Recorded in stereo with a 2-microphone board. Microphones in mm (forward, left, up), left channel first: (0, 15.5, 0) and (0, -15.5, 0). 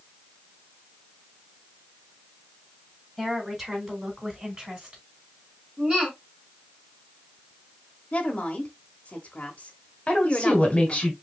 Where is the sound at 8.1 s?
40° left (ahead or behind), 1.1 m.